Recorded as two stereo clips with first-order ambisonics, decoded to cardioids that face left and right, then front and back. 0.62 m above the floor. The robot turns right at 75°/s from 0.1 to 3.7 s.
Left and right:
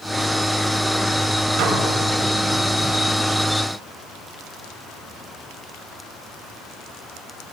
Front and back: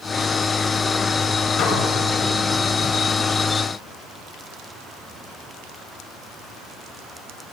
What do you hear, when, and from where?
1.6 s dishes clattering: 60° right, 2.5 m; by 1.8 s 45° right, 2.5 m